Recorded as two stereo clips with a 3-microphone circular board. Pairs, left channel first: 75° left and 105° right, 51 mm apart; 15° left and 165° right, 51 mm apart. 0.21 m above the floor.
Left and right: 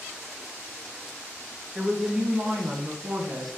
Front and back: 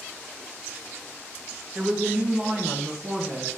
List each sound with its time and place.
1.8 s a woman speaking: 140° right, 1.0 m; by 3.6 s 85° right, 1.6 m